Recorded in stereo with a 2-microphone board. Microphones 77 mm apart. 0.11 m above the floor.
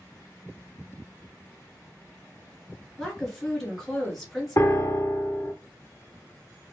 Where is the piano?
35° left (ahead or behind), 0.6 m.